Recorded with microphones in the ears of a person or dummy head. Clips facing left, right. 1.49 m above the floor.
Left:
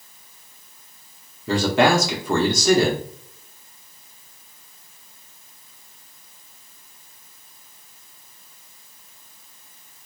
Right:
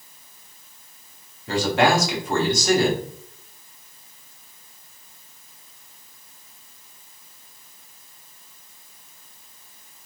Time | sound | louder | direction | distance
1.5 | a man speaking | left 2 dB | 75° left (ahead or behind) | 1.0 m